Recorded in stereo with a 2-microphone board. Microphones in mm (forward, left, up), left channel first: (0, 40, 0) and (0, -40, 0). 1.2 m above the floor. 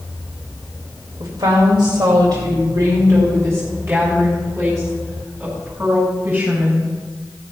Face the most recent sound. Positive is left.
turn(degrees=-25)  # may be behind; listen again after turning